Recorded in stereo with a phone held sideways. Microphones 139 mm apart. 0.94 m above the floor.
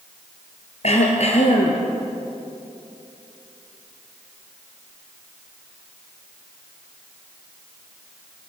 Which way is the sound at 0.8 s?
55° left (ahead or behind).